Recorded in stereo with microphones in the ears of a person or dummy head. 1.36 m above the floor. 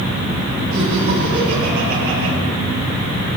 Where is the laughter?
60° right (ahead or behind), 9.5 m.